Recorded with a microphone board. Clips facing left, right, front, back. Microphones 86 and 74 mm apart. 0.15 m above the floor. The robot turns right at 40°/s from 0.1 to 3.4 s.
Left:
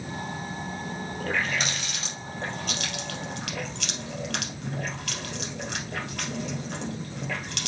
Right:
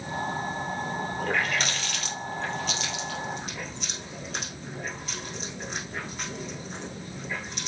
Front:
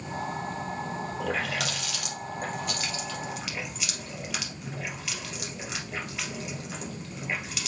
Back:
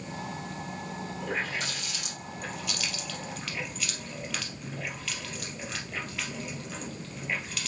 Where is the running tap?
10° right, 2.5 m; by 7.7 s 75° left, 2.5 m.